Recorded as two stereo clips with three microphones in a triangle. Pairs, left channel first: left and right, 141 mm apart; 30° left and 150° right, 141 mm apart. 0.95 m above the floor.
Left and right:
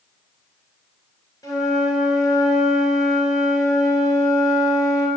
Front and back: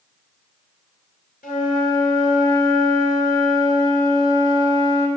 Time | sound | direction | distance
1.4 | a flute | 25° left | 3 m